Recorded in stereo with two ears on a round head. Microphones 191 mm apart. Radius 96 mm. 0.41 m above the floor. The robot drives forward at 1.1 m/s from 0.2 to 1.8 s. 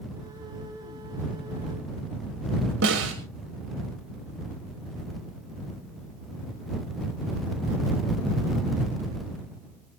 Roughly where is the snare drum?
Right.